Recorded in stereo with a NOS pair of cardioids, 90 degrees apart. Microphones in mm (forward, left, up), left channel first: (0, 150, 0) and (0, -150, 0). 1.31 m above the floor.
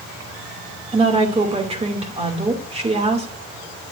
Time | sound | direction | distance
0.9 | a woman speaking | 20° right | 2.5 m